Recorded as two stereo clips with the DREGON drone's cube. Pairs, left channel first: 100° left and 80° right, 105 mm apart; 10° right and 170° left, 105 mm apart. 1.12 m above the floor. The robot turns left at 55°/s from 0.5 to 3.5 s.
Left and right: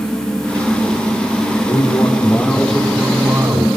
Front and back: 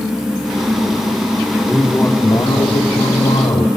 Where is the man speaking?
75° left, 3.5 m; by 3.7 s 30° right, 3.5 m.